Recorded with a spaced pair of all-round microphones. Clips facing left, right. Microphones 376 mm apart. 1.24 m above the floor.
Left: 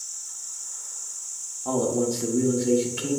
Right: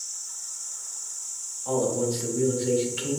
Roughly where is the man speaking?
Left.